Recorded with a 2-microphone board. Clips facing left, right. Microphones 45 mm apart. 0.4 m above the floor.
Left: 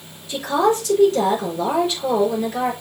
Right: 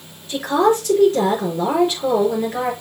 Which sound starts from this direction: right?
A woman speaking, at 0.3 s.